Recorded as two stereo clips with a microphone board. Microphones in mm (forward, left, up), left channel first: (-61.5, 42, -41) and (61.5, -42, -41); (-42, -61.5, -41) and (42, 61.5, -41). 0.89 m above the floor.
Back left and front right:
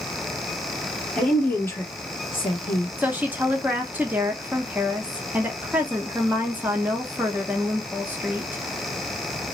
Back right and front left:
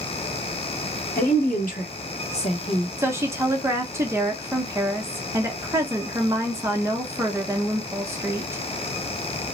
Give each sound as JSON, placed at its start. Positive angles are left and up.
{"t": 1.1, "sound": "a woman speaking", "azimuth_deg": -130, "distance_m": 1.4}
{"t": 3.0, "sound": "a woman speaking", "azimuth_deg": 25, "distance_m": 0.7}